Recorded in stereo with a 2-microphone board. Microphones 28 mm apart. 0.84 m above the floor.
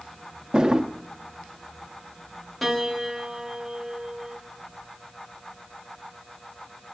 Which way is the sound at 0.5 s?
25° right (ahead or behind).